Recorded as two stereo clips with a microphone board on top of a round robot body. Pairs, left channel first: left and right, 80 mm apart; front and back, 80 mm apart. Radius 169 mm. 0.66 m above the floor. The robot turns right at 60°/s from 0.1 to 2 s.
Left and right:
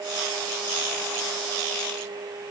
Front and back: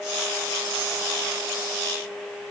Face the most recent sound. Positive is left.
No sound to turn to.